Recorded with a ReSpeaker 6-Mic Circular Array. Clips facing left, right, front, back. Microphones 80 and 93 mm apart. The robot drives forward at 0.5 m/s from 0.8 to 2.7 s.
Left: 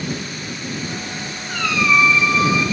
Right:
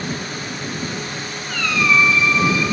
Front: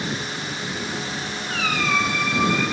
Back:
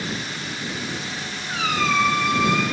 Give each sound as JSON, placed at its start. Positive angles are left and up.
{"t": 1.5, "sound": "a squeak", "azimuth_deg": 120, "distance_m": 0.5}